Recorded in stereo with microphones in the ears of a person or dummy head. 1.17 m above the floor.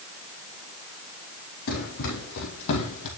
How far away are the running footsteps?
About 4 m.